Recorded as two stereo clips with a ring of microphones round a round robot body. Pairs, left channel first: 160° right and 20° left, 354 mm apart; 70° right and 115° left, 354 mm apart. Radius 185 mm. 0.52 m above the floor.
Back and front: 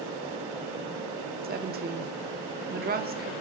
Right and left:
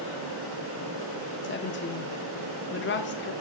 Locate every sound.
1.4 s a woman speaking: 30° right, 1.1 m